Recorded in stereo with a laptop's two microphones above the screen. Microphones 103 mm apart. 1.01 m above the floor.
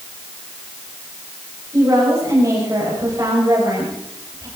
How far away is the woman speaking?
About 5 m.